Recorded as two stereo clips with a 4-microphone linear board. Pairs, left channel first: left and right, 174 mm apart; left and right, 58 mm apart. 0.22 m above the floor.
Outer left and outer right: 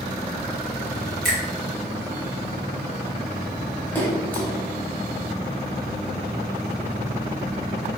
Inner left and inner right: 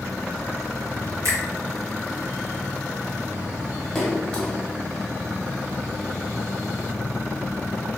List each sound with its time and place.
1.2 s a finger snap: 55° right (ahead or behind), 1.6 m
4.0 s a splash: 10° left (ahead or behind), 0.8 m